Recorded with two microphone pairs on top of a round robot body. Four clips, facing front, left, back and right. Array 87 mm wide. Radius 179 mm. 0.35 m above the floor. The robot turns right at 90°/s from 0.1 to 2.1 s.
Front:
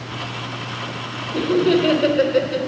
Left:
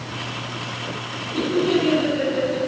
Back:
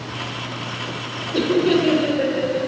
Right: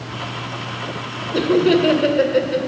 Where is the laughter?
115° right, 2.5 m; by 2.7 s 45° right, 2.5 m.